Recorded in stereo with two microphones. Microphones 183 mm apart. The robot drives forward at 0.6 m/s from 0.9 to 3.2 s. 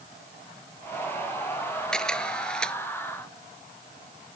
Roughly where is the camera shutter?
Centre.